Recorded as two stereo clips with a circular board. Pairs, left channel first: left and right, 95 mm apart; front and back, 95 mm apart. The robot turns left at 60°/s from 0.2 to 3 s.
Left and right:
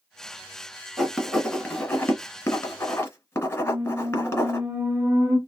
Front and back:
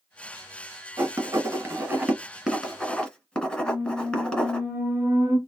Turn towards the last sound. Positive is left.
turn(degrees=-150)